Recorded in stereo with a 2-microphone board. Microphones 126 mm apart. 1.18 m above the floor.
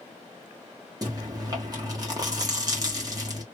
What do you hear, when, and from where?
1.0 s chewing: 30° right (ahead or behind), 1.3 m